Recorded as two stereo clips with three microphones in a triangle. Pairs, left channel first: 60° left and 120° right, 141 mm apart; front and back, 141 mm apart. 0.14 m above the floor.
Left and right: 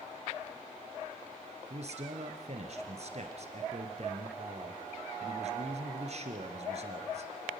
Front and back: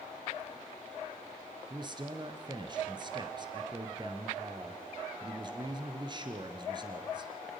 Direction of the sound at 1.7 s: 130° right.